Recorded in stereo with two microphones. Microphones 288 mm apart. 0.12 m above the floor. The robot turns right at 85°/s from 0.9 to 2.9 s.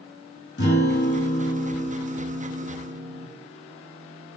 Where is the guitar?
100° left, 1.1 m; by 3.3 s 90° right, 1.1 m.